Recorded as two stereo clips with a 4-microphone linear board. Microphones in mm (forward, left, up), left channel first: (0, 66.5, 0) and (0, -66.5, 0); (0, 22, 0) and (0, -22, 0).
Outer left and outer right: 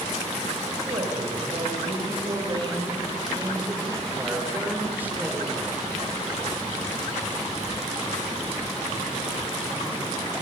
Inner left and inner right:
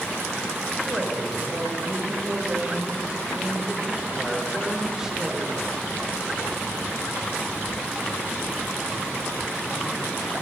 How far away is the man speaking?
About 6 m.